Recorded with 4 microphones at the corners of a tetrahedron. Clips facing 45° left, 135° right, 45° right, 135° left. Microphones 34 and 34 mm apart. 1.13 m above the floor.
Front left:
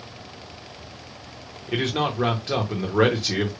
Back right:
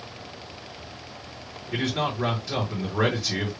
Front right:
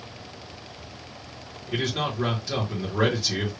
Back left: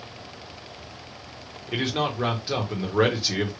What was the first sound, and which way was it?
A man speaking, 80° left.